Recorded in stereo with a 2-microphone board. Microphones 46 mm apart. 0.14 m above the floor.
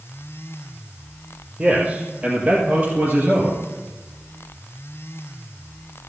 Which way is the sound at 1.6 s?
20° right (ahead or behind).